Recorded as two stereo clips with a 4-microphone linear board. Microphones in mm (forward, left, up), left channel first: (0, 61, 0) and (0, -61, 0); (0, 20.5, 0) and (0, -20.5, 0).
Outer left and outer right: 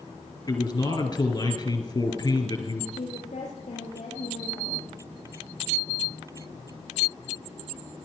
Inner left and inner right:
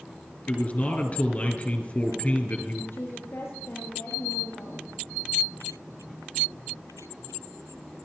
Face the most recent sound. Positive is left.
turn(degrees=80)